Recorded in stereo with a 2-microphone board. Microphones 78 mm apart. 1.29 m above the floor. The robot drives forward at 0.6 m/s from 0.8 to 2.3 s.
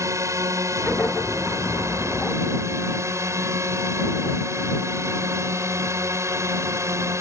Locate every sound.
0.0 s a drone: 40° right (ahead or behind)